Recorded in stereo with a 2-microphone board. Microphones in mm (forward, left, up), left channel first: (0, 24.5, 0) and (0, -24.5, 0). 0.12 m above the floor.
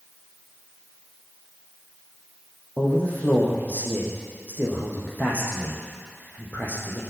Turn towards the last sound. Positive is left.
turn(degrees=35)  # may be behind; listen again after turning